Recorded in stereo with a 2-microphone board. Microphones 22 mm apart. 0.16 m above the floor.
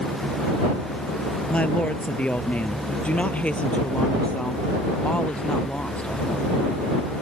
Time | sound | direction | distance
1.5 | a woman speaking | 65° left (ahead or behind) | ?